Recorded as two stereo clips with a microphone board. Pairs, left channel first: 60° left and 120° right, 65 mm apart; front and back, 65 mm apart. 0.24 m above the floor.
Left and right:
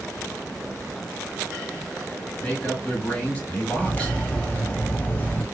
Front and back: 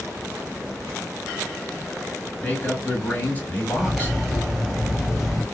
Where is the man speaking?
20° left, 1.6 m.